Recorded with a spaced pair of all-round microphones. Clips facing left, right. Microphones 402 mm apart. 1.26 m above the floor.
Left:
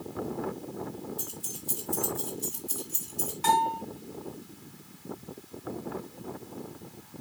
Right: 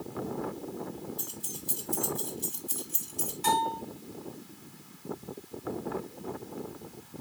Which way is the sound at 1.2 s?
Centre (ahead or behind).